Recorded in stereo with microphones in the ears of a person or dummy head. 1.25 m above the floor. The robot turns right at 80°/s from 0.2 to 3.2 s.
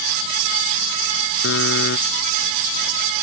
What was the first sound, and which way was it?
A buzzer, 85° left.